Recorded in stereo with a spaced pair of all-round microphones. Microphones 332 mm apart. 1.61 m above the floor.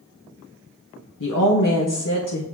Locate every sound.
1.2 s a woman speaking: 70° left (ahead or behind), 1.0 m